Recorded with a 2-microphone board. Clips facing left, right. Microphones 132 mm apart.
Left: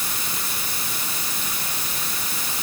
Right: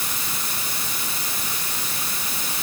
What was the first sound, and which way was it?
Only background noise.